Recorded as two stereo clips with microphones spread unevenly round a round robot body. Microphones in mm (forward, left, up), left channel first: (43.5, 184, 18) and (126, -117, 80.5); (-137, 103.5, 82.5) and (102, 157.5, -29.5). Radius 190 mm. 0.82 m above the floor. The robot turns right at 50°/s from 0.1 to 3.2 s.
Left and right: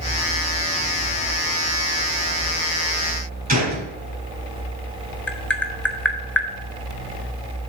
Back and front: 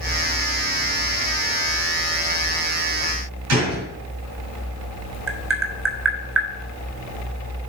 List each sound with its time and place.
3.5 s a gunshot: 10° right, 4.5 m
5.3 s tapping: 20° left, 1.5 m